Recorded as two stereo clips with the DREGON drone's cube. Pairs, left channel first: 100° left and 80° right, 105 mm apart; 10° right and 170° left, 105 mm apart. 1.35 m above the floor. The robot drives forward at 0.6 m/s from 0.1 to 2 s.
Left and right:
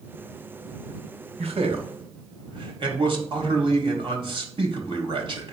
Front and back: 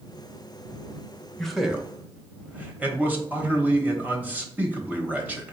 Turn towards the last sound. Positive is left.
turn(degrees=-115)